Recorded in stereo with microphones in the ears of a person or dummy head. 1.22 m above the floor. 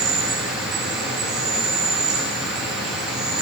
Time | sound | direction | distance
0.0 | an insect | centre (ahead or behind) | 2.5 m